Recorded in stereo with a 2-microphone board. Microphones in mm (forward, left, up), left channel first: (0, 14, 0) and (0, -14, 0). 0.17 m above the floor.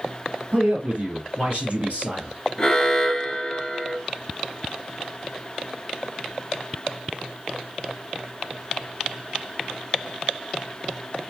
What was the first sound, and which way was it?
A man speaking, 50° right (ahead or behind).